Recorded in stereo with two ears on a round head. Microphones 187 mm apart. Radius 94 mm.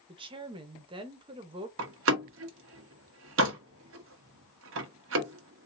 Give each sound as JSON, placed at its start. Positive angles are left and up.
{"t": 0.1, "sound": "a woman speaking", "side_deg": -25, "distance_m": 0.9}
{"t": 1.8, "sound": "a door slam", "side_deg": -65, "distance_m": 1.0}